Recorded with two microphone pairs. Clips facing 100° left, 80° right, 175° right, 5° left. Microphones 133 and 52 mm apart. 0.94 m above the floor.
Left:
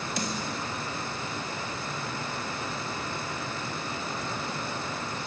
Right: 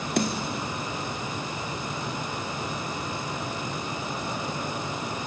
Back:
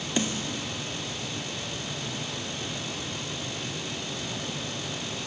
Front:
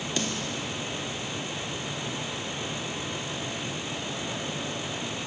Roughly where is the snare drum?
Right.